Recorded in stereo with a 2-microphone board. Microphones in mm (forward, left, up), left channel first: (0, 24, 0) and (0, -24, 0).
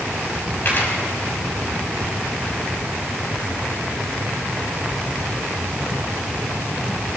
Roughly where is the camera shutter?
Left.